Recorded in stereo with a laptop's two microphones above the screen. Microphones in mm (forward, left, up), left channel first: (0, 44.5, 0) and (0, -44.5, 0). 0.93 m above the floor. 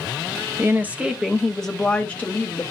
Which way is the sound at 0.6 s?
30° right (ahead or behind).